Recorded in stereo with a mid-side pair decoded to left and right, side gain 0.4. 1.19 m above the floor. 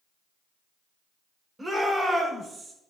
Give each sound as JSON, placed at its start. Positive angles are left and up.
{"t": 1.6, "sound": "a shout", "azimuth_deg": -20, "distance_m": 5.0}